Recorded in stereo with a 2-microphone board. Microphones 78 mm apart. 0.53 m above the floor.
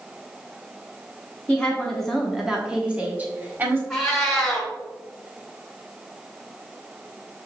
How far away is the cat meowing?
About 1.5 m.